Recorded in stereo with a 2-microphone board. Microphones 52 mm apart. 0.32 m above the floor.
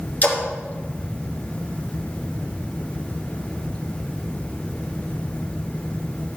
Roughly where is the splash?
Left.